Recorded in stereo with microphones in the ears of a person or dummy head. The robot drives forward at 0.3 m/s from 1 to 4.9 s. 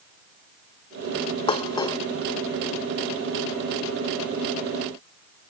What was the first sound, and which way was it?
Dishes clattering, 20° left (ahead or behind).